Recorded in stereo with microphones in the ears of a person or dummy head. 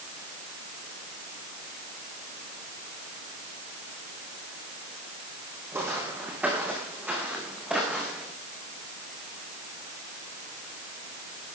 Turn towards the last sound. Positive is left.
turn(degrees=-5)  # may be behind; listen again after turning